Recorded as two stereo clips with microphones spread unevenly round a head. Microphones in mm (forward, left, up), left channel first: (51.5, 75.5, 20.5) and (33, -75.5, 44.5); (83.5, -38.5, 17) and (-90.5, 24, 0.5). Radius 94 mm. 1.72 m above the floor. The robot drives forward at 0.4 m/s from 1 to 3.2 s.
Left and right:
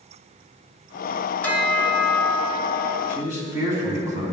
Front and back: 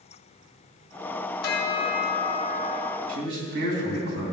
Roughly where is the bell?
Ahead.